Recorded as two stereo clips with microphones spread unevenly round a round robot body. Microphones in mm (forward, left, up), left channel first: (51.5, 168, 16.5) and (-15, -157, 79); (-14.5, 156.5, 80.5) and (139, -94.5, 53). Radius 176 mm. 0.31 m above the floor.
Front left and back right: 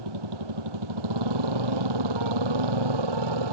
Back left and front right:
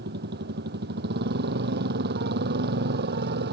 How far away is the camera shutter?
No camera shutter in this recording.